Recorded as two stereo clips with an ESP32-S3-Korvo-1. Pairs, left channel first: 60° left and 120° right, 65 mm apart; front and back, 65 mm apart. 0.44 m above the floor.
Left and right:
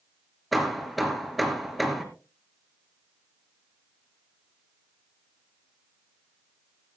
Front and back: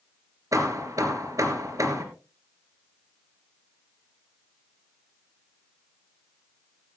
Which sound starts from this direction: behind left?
Hammering, at 0.5 s.